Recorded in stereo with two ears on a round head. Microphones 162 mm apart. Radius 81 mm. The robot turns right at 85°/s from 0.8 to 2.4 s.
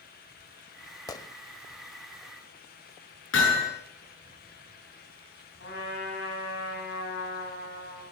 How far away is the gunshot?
About 0.5 m.